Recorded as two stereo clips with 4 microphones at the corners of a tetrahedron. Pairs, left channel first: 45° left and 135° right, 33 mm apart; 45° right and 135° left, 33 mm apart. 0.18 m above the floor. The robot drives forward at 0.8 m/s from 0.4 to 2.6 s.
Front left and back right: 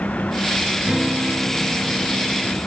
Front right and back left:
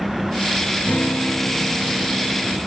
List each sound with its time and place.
0.8 s a guitar: 65° right, 1.5 m; by 2.6 s 125° right, 1.6 m